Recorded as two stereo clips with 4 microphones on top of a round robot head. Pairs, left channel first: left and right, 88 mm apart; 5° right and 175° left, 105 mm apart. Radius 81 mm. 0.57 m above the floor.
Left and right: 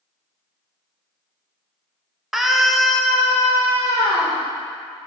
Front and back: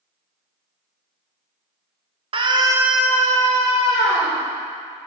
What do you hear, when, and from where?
2.3 s a scream: 175° right, 1.2 m; by 4.4 s 5° left, 2 m